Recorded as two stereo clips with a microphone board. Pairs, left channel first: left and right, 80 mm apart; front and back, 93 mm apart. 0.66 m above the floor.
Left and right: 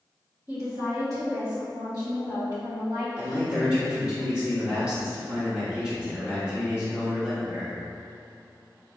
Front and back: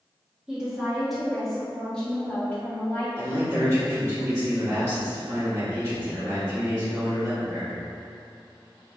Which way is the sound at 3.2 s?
155° right.